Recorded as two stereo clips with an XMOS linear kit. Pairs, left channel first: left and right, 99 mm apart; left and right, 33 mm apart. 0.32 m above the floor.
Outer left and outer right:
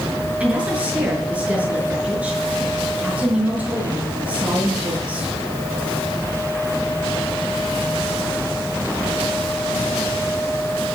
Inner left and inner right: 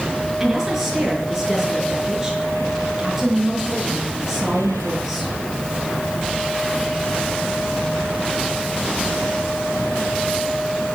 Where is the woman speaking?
15° right (ahead or behind), 5.5 m.